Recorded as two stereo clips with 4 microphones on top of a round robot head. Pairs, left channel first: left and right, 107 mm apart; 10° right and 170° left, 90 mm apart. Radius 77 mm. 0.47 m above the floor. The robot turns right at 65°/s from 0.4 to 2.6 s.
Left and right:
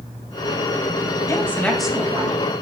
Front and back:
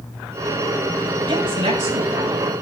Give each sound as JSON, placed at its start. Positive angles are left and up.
{"t": 1.3, "sound": "a woman speaking", "azimuth_deg": 145, "distance_m": 3.0}